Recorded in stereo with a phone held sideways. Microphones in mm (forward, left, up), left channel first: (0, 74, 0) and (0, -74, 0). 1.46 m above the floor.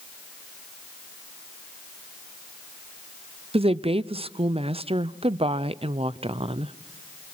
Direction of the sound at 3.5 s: 40° right (ahead or behind).